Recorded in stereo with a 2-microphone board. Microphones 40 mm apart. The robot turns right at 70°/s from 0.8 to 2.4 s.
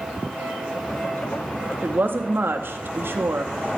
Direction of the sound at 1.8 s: 135° right.